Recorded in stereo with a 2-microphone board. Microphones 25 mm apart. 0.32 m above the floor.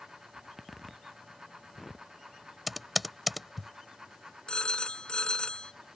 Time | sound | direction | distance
0.3 | a zipper | centre (ahead or behind) | ?
2.7 | typing on a keyboard | 5° right (ahead or behind) | ?
4.5 | a phone ringing | 40° left (ahead or behind) | ?